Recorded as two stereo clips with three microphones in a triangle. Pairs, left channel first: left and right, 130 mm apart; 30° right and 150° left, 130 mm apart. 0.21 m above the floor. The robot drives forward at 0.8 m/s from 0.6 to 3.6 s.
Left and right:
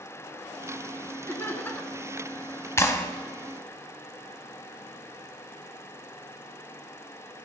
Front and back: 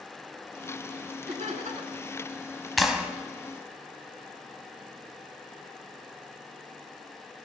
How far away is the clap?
About 1.1 m.